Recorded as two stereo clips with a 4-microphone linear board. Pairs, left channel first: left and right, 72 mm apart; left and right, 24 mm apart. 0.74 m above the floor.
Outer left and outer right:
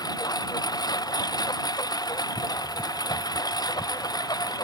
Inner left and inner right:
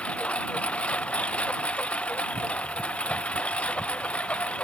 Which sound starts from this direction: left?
A lawn mower, at 0.0 s.